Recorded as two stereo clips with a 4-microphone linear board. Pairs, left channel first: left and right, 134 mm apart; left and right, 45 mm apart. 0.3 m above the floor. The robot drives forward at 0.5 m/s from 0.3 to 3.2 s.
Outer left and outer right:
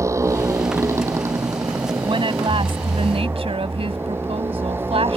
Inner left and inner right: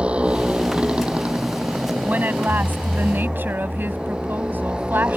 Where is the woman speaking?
40° right (ahead or behind); by 5.2 s 45° right (ahead or behind).